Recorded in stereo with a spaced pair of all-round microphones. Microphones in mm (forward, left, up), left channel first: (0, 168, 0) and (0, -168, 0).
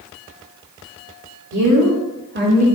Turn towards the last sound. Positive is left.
turn(degrees=-20)  # may be behind; listen again after turning